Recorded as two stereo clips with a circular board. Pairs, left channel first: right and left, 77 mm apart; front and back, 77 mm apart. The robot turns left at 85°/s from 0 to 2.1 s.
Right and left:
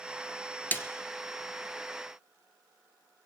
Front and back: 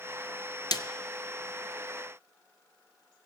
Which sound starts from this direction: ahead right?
A snare drum, at 0.7 s.